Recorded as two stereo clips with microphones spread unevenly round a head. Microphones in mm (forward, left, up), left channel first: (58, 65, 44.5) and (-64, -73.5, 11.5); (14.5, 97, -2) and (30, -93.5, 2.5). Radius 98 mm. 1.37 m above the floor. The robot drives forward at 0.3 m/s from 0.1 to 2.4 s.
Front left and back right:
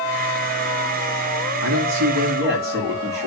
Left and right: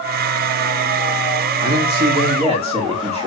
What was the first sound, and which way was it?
A man speaking, 150° right.